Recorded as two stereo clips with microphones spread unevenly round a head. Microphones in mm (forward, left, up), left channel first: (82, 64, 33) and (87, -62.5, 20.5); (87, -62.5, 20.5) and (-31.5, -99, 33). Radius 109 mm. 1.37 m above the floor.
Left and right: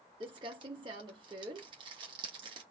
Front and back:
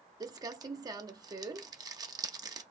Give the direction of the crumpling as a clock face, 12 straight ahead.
5 o'clock.